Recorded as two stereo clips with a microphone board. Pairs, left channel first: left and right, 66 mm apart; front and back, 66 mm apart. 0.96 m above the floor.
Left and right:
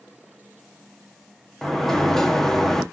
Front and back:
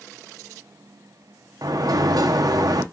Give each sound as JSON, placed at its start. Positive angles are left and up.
{"t": 1.6, "sound": "a sliding door", "azimuth_deg": 175, "distance_m": 0.6}